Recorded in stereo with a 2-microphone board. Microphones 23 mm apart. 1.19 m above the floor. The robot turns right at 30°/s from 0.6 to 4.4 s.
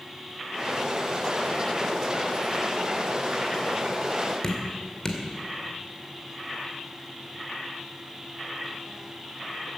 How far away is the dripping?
About 1.8 m.